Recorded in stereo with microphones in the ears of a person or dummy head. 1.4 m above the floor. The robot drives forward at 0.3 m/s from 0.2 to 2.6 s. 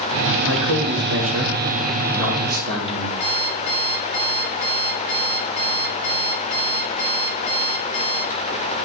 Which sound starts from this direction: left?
An alarm clock, at 3.2 s.